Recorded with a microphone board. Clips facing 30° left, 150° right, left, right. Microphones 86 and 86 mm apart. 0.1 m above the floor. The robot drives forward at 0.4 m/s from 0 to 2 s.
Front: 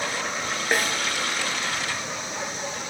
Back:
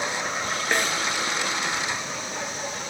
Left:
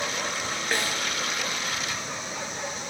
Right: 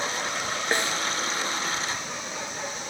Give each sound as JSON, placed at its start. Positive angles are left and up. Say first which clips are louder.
{"t": 0.7, "sound": "a snare drum", "louder": "front 1 dB, right 2 dB", "azimuth_deg": -45, "distance_m": 1.4}